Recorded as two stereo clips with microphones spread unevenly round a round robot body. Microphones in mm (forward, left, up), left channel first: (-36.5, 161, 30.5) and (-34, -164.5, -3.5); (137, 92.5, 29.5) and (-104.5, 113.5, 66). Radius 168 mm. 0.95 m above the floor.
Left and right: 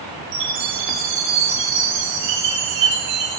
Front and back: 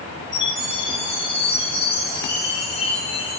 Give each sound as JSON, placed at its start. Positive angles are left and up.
{"t": 0.3, "sound": "a chime", "azimuth_deg": -85, "distance_m": 7.5}